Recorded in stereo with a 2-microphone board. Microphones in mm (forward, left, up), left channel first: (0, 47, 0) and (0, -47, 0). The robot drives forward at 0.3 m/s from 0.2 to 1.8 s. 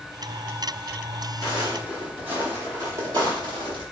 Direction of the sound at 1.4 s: 10° right (ahead or behind).